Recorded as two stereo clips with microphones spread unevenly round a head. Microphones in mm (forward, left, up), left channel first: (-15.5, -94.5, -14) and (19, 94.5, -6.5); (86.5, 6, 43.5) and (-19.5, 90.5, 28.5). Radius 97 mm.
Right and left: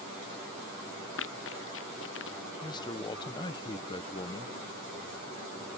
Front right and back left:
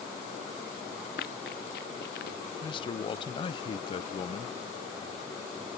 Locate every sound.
1.2 s running footsteps: 80° right; by 2.4 s 75° right
2.6 s a man speaking: 60° right